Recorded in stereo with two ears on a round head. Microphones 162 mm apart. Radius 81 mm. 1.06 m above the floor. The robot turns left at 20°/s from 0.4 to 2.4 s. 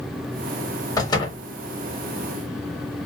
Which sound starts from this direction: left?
A door slam, at 1.0 s.